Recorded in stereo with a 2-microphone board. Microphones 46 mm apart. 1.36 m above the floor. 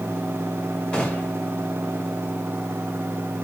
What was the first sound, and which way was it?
A gunshot, 25° left (ahead or behind).